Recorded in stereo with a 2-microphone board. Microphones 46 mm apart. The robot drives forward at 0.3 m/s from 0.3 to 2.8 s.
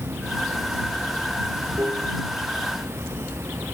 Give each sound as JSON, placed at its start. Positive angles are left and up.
{"t": 0.0, "sound": "running water", "side_deg": -65}